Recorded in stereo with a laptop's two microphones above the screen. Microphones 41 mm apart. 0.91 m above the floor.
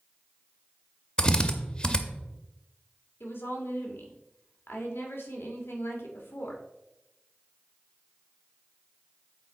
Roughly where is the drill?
Left.